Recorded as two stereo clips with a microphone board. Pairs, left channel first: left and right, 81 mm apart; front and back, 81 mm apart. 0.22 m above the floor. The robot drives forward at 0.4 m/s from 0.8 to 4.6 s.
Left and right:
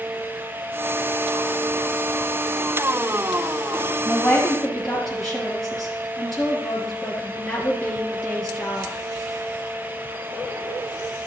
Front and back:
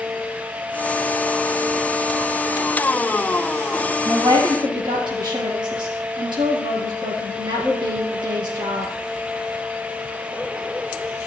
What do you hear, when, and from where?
4.0 s a woman speaking: 175° left, 3.5 m